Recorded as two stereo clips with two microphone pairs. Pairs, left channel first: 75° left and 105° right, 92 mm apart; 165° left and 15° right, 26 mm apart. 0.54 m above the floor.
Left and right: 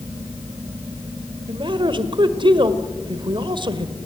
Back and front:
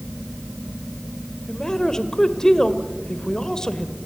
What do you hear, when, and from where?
1.5 s a man speaking: 130° right, 1.9 m